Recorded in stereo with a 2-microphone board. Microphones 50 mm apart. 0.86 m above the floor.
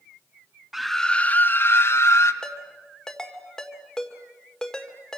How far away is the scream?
About 0.9 m.